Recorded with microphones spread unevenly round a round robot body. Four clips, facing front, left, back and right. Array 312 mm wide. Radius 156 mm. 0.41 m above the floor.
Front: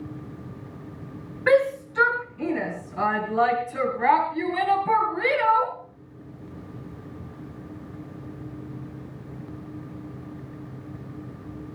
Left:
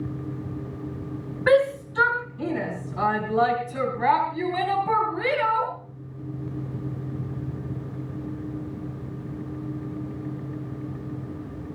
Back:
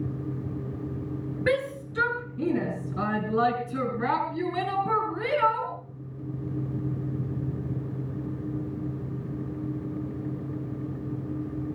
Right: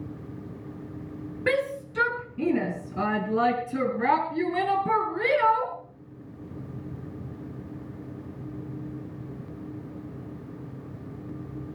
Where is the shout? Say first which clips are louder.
Left 8 dB, front 8 dB; 135° right, 4 m; by 5.7 s 120° right, 6.5 m.